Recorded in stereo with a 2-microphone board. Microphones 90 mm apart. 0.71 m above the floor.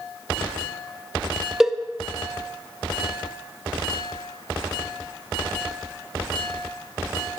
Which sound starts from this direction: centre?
A cowbell, at 1.6 s.